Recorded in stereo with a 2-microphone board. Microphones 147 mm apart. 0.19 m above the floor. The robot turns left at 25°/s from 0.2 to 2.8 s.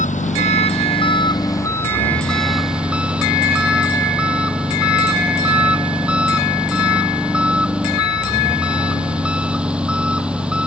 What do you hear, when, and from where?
0.0 s an engine running: 55° left; by 10.7 s 10° right